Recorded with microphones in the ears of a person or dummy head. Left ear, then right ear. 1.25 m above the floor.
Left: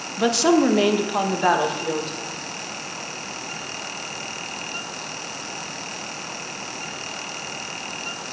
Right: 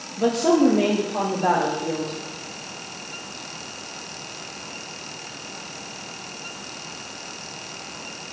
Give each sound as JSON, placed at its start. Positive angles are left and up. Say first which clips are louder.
{"t": 0.2, "sound": "a woman speaking", "louder": "left 1 dB", "side_deg": 40, "distance_m": 1.1}